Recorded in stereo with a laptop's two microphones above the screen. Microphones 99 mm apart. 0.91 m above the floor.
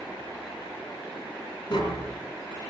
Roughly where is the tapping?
Left.